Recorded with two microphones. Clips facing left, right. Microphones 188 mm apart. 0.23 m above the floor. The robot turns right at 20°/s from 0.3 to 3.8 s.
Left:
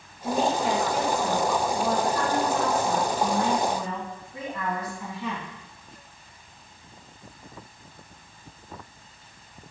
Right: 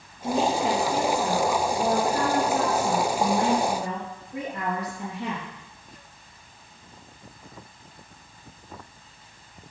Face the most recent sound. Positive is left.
turn(degrees=-85)